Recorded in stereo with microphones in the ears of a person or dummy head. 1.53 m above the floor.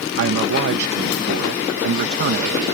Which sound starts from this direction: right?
A man speaking, at 0.2 s.